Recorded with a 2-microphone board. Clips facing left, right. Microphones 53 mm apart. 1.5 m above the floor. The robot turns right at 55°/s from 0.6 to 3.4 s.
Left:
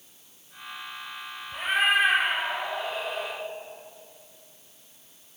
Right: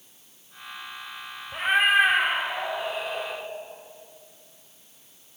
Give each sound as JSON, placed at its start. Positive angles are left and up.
{"t": 1.5, "sound": "a cat meowing", "azimuth_deg": -90, "distance_m": 1.0}